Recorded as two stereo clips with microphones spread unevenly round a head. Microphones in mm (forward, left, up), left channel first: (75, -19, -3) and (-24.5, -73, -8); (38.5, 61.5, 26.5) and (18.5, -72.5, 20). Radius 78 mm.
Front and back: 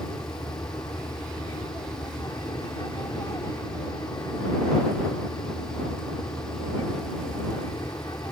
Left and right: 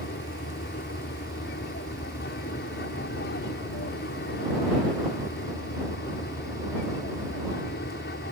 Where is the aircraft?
100° left.